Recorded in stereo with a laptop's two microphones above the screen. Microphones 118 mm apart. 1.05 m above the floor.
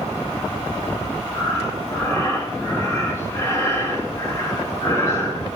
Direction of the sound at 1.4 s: 25° left (ahead or behind).